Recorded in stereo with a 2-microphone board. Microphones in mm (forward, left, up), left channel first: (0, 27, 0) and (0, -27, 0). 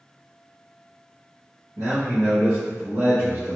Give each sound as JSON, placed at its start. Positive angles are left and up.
{"t": 1.8, "sound": "a man speaking", "side_deg": -65, "distance_m": 0.9}